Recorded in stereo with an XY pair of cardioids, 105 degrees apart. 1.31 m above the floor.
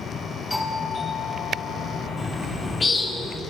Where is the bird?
20° left, 1.9 m.